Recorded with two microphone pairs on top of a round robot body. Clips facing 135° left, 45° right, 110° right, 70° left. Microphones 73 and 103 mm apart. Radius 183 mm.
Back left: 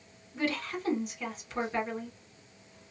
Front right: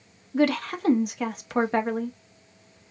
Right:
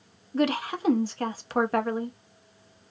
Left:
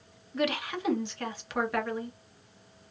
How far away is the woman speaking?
About 1.0 m.